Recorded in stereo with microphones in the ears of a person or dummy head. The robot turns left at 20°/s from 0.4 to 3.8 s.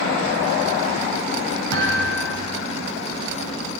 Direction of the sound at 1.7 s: 70° right (ahead or behind).